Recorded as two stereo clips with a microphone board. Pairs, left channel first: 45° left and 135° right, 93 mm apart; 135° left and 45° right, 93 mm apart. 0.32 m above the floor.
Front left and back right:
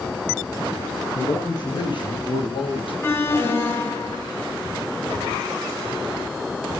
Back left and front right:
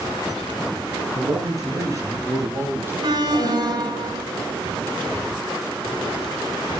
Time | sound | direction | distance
1.1 | a man speaking | 5° left | 7.5 m
3.0 | an alarm | 15° right | 3.5 m